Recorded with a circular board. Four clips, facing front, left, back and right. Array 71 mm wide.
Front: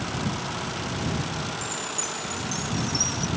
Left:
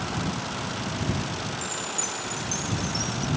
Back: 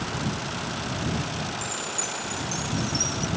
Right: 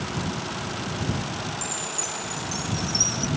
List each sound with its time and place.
1.6 s a chime: 80° right